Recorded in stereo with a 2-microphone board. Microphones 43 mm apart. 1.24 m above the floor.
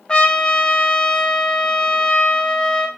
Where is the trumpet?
20° left (ahead or behind), 0.6 m.